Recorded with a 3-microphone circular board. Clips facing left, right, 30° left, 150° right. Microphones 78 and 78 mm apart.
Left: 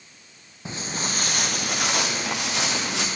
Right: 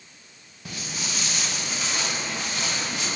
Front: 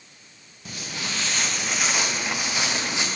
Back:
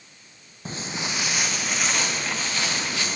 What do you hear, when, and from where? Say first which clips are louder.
0.7 s footsteps: left 4 dB, back 3 dB; 155° left, 1.0 m; by 3.1 s 100° left, 2 m